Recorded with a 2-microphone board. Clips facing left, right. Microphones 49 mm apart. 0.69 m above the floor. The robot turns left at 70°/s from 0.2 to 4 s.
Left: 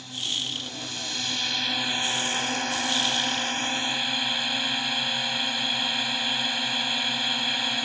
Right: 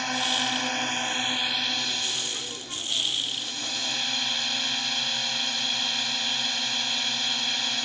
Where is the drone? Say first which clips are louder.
Right 6 dB; 80° right; by 7.8 s 15° left.